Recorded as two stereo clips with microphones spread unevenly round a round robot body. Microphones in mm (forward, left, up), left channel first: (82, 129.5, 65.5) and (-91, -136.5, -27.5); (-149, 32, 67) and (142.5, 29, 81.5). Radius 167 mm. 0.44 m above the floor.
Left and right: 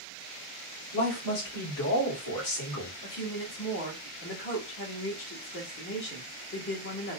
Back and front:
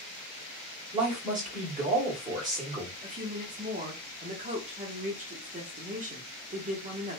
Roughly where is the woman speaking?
Ahead left.